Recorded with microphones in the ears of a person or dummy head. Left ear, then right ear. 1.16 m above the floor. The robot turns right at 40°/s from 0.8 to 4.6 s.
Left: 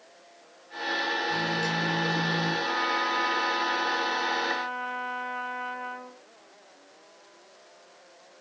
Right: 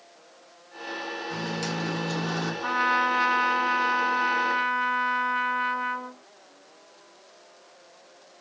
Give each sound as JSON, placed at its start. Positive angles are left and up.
{"t": 1.3, "sound": "a microwave", "azimuth_deg": -160, "distance_m": 1.1}
{"t": 2.6, "sound": "a trumpet", "azimuth_deg": -115, "distance_m": 0.8}